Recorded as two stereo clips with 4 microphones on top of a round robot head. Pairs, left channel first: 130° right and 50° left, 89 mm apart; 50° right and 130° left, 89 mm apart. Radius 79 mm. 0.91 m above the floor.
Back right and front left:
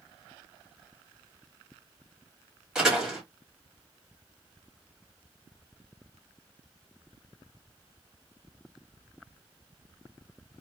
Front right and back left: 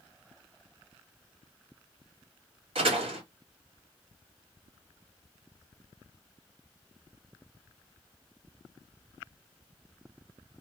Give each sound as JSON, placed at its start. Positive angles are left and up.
{"t": 2.8, "sound": "a door slam", "azimuth_deg": 135, "distance_m": 1.9}